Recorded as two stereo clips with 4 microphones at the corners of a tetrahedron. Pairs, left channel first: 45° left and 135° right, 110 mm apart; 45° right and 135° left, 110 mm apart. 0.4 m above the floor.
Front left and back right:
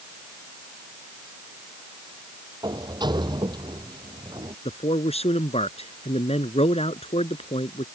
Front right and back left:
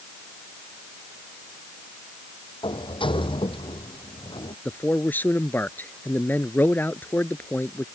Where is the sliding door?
85° right.